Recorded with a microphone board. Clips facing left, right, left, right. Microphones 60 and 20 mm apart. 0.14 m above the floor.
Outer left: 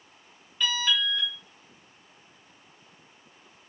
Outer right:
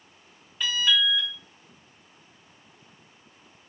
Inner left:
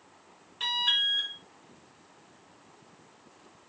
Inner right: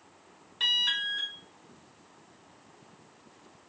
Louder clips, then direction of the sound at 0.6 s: Outer right 2 dB, even; 10° right (ahead or behind).